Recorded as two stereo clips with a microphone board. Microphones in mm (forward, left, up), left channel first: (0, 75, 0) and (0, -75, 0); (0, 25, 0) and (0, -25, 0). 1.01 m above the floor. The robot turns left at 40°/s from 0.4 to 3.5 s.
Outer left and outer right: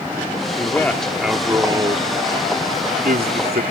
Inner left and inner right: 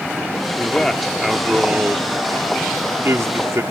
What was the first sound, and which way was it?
A man speaking, 20° left.